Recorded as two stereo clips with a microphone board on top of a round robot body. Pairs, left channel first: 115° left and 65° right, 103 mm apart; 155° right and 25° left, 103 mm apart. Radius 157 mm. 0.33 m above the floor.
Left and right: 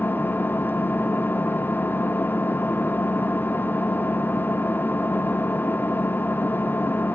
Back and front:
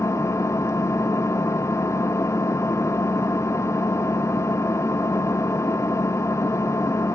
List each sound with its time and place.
0.0 s an engine running: 165° left, 0.7 m